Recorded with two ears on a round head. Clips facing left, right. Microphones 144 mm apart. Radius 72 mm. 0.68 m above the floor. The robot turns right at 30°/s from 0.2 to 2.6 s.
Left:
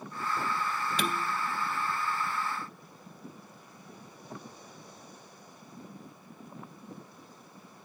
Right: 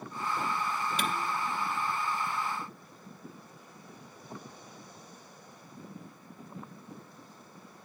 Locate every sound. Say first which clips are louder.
1.0 s dishes clattering: left 3 dB; 65° left (ahead or behind), 1.0 m; by 1.2 s 70° left (ahead or behind), 1.0 m